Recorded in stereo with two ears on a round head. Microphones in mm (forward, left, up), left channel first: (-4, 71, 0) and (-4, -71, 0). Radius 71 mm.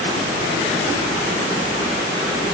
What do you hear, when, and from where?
Only background noise.